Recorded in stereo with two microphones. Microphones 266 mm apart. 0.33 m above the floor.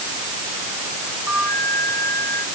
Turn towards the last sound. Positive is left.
turn(degrees=80)